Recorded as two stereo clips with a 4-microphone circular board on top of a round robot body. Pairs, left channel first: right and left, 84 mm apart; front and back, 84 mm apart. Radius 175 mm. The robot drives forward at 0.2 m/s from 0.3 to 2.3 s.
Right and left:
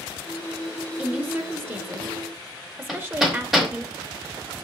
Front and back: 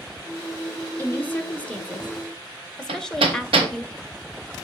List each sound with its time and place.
1.0 s a woman speaking: 40° left, 1.0 m; by 3.9 s 70° left, 0.9 m
2.9 s hammering: 175° left, 1.0 m